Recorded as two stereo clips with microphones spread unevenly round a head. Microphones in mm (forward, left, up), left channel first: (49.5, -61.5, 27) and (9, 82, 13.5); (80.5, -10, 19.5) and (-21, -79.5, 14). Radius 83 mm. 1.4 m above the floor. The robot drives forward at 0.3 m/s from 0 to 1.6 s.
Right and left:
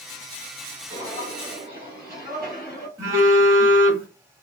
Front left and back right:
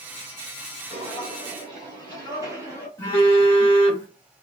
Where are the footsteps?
175° left, 1.7 m; by 2.9 s 110° right, 1.4 m.